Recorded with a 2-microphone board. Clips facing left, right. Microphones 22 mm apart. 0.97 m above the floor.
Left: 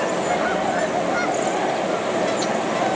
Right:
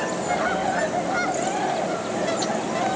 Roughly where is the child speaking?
No child speaking in this recording.